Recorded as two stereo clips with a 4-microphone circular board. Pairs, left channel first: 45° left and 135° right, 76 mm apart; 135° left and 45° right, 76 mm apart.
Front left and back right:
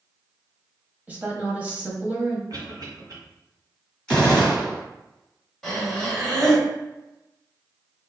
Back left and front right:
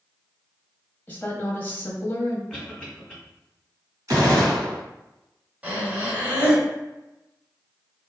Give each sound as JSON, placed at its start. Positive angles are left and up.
{"t": 1.1, "sound": "a woman speaking", "azimuth_deg": 180, "distance_m": 1.1}
{"t": 2.5, "sound": "a cough", "azimuth_deg": -135, "distance_m": 1.6}
{"t": 4.1, "sound": "a gunshot", "azimuth_deg": -35, "distance_m": 1.8}
{"t": 5.6, "sound": "breathing", "azimuth_deg": -25, "distance_m": 1.3}